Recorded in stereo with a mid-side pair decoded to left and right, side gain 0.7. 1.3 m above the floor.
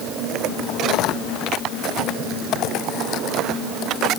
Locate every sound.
Only background noise.